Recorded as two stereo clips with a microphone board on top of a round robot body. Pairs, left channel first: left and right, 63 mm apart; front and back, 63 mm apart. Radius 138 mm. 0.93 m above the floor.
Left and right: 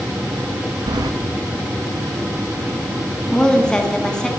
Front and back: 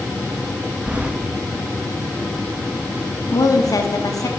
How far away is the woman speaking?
About 1.5 m.